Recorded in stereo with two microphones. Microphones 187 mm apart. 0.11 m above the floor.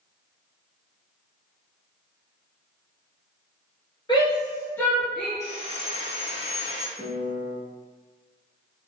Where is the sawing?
35° left (ahead or behind), 1.1 m.